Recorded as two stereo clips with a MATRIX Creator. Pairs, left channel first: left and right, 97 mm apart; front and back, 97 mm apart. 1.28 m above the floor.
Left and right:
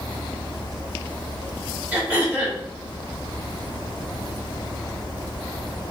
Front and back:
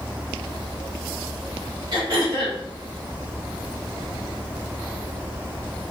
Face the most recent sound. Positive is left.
turn(degrees=-160)